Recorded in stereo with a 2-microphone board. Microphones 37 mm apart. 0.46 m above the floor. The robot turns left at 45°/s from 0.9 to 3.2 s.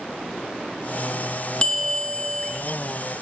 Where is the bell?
25° left (ahead or behind), 0.6 m.